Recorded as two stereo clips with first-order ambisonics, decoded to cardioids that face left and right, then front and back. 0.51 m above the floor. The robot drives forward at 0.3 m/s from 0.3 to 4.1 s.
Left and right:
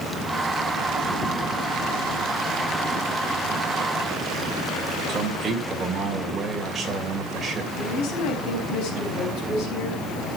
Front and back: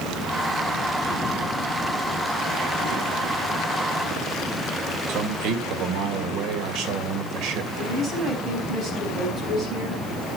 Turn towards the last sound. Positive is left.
turn(degrees=115)